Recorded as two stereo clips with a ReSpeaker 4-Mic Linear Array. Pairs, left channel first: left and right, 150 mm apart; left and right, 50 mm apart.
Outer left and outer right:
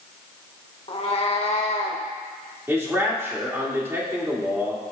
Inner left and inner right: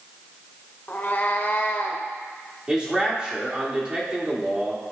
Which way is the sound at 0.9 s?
40° left (ahead or behind).